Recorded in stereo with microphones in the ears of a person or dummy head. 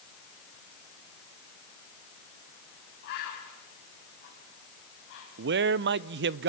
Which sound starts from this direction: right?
A man speaking, at 5.4 s.